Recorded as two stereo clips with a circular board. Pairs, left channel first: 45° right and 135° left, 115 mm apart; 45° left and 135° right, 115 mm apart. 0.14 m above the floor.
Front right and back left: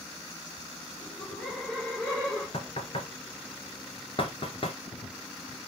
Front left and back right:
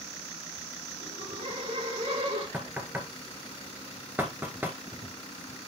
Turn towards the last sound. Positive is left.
turn(degrees=-65)